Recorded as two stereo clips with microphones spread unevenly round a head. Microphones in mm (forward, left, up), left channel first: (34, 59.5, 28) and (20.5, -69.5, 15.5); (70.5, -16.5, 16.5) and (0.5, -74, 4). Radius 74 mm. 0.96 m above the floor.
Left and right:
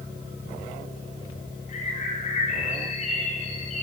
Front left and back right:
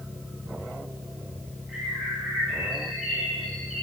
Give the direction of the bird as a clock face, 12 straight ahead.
8 o'clock.